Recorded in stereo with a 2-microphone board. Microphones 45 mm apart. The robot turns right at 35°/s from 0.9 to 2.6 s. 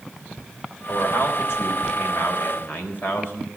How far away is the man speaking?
About 4 m.